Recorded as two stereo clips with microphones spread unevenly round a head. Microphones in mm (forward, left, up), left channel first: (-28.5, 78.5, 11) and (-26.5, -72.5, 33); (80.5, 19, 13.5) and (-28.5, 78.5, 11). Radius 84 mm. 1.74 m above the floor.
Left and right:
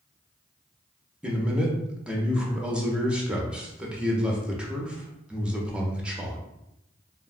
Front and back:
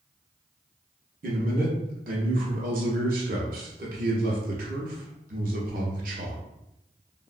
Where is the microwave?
No microwave in this recording.